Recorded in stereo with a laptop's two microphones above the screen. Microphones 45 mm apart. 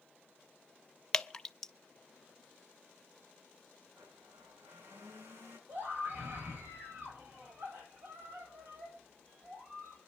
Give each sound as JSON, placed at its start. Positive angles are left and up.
{"t": 1.1, "sound": "dripping", "side_deg": 15, "distance_m": 0.6}
{"t": 3.9, "sound": "a blender", "side_deg": -70, "distance_m": 6.5}
{"t": 5.7, "sound": "a scream", "side_deg": -50, "distance_m": 5.0}